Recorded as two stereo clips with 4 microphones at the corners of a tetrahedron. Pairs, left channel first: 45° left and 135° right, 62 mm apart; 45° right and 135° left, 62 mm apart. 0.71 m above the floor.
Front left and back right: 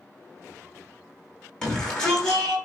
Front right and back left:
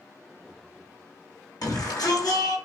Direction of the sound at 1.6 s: 30° right.